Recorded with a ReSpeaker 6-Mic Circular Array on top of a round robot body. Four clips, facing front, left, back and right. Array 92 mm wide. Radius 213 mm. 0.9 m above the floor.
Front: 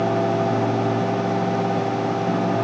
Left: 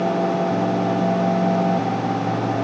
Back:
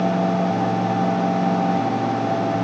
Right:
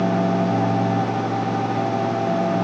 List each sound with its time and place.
Only background noise.